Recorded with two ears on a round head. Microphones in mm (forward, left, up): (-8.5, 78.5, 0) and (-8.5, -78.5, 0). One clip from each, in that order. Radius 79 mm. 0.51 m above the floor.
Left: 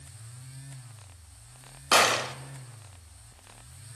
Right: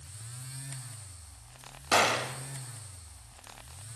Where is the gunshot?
20° left (ahead or behind), 0.7 m.